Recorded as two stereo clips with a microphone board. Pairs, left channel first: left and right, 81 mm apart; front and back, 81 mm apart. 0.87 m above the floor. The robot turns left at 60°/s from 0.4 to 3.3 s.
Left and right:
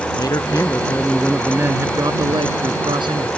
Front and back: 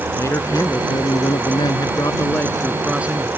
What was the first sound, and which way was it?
A man speaking, 50° left.